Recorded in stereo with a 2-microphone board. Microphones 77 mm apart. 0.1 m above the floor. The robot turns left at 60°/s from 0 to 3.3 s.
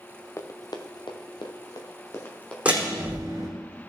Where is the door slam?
15° right (ahead or behind), 4 m; by 3.5 s 50° right (ahead or behind), 4 m.